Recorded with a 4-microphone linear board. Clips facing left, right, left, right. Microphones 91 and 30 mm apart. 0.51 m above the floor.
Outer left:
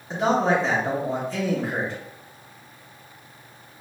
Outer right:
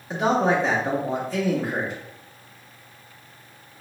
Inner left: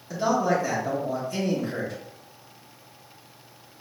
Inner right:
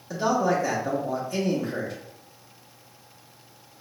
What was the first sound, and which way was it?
A man speaking, 5° right (ahead or behind).